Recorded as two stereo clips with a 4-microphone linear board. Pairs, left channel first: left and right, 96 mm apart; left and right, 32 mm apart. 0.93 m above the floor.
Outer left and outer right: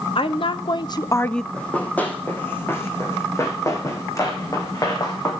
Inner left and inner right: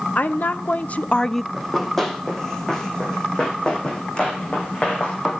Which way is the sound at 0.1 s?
70° left (ahead or behind).